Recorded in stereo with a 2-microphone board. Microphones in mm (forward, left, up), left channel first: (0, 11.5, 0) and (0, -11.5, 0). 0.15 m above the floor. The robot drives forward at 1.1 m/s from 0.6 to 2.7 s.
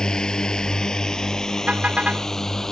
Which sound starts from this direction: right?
A car horn, at 1.7 s.